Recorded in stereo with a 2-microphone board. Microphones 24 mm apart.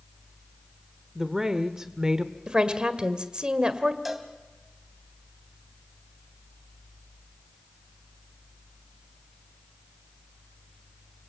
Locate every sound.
1.1 s a woman speaking: 15° right (ahead or behind), 1.2 m; by 2.3 s 25° right (ahead or behind), 1.1 m
2.5 s a woman speaking: 35° right (ahead or behind), 1.7 m
4.0 s a cowbell: 10° right (ahead or behind), 2.5 m